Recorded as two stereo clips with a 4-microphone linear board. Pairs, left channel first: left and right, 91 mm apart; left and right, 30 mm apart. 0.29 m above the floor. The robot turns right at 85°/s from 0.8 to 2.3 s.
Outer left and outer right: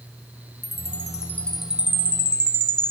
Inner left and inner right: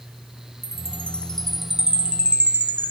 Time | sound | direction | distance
0.6 | a chime | 110° left | ?